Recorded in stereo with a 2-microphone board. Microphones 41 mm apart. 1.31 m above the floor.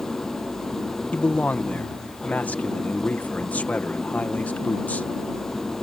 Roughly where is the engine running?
Centre.